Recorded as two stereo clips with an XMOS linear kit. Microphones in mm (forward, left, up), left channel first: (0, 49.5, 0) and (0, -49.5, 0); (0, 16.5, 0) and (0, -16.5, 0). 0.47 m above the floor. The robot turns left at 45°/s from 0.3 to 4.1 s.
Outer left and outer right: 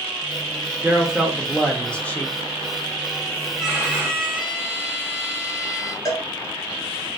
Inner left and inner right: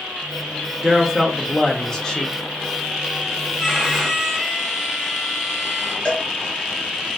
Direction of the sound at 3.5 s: 10° right (ahead or behind).